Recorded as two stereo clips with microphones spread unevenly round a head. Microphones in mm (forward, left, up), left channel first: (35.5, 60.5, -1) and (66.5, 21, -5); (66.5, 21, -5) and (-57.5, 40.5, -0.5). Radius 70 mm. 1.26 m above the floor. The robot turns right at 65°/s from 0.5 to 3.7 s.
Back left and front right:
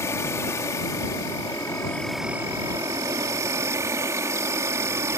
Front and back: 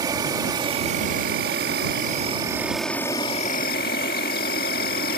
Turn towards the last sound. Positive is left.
turn(degrees=-40)